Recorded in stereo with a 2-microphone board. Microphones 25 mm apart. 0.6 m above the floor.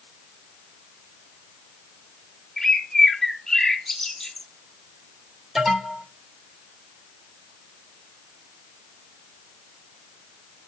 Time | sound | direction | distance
2.6 | a bird | 20° left (ahead or behind) | 1.1 m
5.5 | an alarm | 5° right (ahead or behind) | 3.5 m